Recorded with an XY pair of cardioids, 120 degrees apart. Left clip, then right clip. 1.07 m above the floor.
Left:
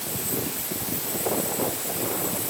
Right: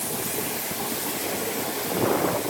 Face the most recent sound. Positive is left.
No sound to turn to.